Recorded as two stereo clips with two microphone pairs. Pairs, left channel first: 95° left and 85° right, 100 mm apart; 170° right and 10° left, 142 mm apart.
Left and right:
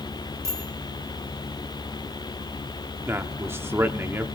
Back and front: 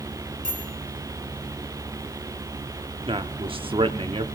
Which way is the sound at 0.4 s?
20° right.